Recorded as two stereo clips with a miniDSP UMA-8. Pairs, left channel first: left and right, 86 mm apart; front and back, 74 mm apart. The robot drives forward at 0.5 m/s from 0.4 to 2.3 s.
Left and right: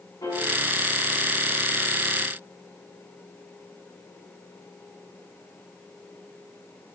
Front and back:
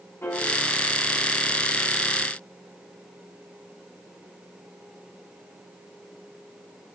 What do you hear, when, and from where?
0.2 s a piano: 55° left, 6 m